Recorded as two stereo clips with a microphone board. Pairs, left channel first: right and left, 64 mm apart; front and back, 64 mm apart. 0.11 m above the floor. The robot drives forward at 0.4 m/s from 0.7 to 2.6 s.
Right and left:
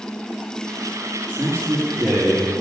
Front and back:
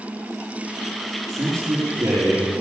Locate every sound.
1.3 s a man speaking: 145° left, 4 m; by 2.5 s 150° left, 4 m